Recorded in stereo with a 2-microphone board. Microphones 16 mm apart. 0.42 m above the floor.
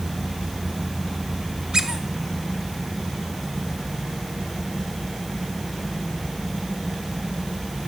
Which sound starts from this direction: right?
A squeak, at 1.7 s.